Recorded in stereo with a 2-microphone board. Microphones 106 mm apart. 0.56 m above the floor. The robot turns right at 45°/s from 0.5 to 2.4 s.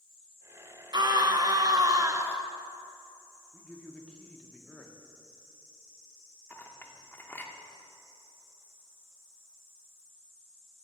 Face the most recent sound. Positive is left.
turn(degrees=20)  # may be behind; listen again after turning